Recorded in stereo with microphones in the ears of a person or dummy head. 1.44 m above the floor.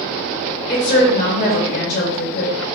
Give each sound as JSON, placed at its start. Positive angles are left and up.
{"t": 0.7, "sound": "a woman speaking", "side_deg": 45, "distance_m": 1.9}